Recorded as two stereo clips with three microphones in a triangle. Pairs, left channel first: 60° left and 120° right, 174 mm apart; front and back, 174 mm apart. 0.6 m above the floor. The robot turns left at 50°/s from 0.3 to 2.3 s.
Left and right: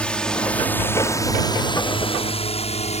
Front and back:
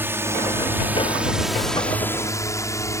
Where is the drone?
130° left; by 3.0 s 65° left.